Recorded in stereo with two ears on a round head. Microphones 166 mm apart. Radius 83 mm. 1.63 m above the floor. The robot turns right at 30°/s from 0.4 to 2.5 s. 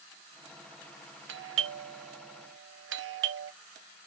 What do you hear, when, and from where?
1.3 s a doorbell: 70° right (ahead or behind), 0.7 m; by 3.5 s 65° right (ahead or behind), 0.7 m